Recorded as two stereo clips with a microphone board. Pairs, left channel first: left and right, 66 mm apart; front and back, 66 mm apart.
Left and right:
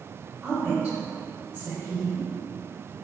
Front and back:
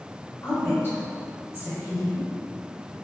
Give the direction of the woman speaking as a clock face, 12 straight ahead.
1 o'clock.